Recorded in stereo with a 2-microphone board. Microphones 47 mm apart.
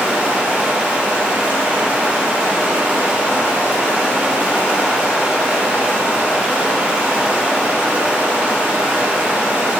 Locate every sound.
0.0 s running water: 30° right (ahead or behind), 2.5 m